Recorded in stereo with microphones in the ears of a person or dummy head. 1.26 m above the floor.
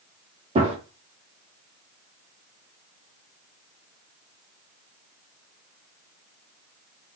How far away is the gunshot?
About 0.9 m.